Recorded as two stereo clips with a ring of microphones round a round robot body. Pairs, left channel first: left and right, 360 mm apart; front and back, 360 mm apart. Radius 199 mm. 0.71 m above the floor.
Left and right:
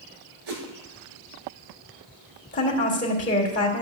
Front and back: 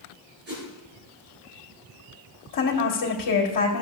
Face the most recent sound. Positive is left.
turn(degrees=25)